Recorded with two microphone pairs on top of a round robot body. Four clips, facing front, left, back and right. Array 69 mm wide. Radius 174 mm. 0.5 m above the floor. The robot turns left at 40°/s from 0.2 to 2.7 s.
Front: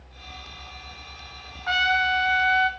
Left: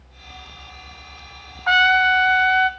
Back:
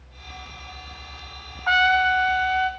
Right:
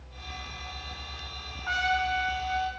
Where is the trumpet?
120° left, 0.7 m; by 2.7 s 80° left, 0.7 m.